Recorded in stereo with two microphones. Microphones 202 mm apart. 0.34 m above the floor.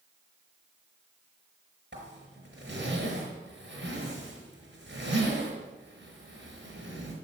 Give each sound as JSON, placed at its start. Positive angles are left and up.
{"t": 1.9, "sound": "a zipper", "side_deg": -65, "distance_m": 5.0}